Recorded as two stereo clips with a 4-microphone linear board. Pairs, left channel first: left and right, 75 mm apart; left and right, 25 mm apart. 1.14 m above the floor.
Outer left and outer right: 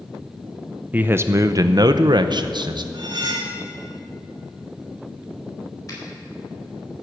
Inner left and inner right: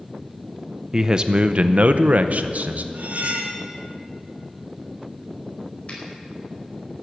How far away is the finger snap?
About 5 m.